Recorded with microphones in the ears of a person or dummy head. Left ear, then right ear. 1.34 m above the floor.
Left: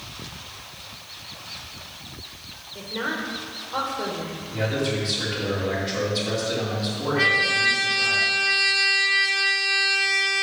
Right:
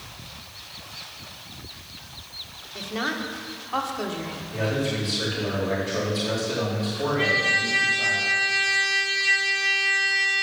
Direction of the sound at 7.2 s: 40° left (ahead or behind).